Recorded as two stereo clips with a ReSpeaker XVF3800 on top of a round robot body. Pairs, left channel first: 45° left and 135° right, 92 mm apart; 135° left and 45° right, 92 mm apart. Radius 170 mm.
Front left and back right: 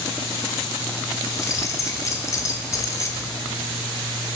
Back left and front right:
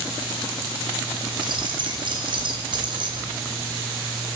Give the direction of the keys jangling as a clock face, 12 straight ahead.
12 o'clock.